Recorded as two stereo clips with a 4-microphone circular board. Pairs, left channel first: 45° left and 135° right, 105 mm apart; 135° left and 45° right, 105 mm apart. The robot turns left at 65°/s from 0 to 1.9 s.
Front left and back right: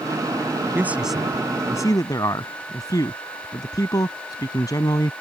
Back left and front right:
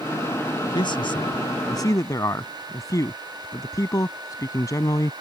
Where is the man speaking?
160° left; by 5.1 s 85° left.